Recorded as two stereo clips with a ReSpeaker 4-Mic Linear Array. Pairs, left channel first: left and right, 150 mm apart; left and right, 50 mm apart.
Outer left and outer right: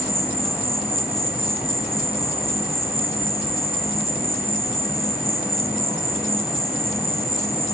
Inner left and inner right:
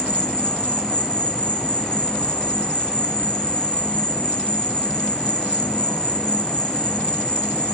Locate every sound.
0.0 s an insect: 25° left (ahead or behind), 1.2 m